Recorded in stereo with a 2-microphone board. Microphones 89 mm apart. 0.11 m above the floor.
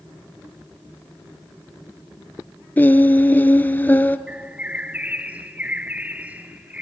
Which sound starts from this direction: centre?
A bird, at 4.3 s.